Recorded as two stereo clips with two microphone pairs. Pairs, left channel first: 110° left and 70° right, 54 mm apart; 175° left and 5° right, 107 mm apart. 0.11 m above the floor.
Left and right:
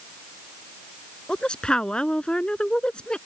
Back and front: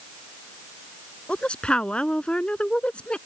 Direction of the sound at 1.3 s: 120° left.